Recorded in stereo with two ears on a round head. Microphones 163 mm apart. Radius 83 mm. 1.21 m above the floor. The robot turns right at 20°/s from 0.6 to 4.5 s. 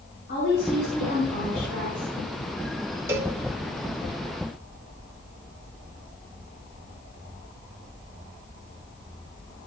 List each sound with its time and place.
0.3 s a woman speaking: 60° left (ahead or behind), 5 m; by 2.1 s 85° left, 5 m
3.1 s a cowbell: 15° right (ahead or behind), 0.9 m; by 3.4 s 10° right (ahead or behind), 0.9 m